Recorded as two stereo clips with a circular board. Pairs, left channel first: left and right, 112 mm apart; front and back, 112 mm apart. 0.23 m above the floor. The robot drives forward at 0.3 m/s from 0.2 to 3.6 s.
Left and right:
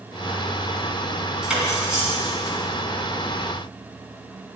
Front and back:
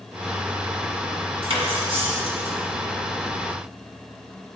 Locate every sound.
1.4 s cutlery clinking: 170° right, 1.4 m; by 2.5 s 175° right, 1.7 m